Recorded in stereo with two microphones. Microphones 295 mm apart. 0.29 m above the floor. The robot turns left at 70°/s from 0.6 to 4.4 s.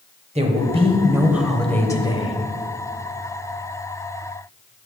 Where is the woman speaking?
20° right (ahead or behind), 1.0 m; by 2.4 s 20° left (ahead or behind), 1.0 m.